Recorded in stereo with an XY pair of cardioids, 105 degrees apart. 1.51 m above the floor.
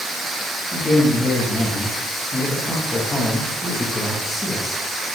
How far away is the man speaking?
About 2 m.